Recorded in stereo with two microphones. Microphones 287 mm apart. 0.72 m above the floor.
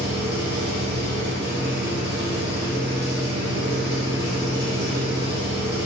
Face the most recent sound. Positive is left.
turn(degrees=-35)  # may be behind; listen again after turning